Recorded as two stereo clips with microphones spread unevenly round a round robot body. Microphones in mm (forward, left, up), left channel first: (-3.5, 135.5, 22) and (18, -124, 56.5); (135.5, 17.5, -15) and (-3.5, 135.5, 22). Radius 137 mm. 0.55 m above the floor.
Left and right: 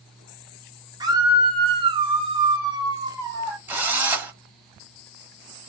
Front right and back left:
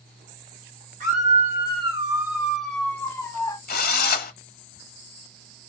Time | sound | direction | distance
1.0 | a scream | 160° right | 1.5 m
3.7 | a drill | straight ahead | 1.0 m